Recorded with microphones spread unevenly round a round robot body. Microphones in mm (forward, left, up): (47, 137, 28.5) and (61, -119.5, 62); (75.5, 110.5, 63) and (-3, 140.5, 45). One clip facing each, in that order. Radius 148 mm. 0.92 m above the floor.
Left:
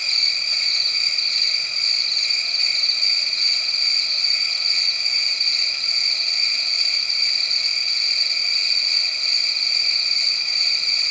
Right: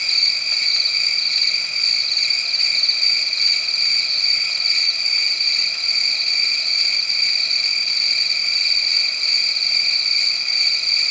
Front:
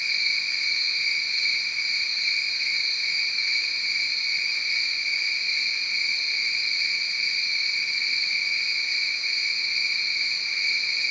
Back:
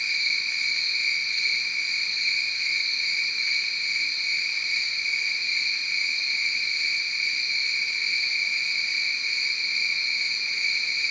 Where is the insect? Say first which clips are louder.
Right 2 dB, even; 115° right, 0.8 m.